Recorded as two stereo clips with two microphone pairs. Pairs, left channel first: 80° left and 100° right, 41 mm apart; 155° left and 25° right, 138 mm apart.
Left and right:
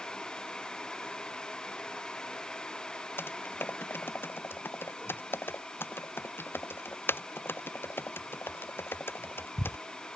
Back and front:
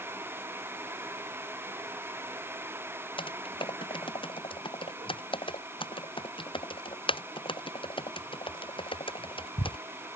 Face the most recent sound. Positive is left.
turn(degrees=105)